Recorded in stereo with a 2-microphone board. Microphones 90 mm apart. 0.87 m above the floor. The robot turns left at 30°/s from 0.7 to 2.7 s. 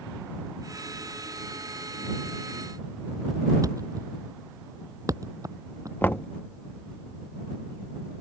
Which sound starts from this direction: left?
Knocking, at 6.0 s.